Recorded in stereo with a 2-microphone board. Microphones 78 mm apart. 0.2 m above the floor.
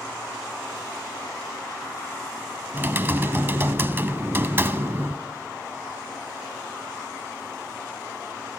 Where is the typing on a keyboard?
30° right (ahead or behind), 0.7 m.